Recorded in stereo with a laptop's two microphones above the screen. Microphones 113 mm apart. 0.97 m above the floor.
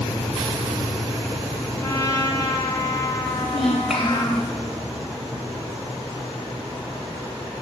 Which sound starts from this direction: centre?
A child speaking, at 3.2 s.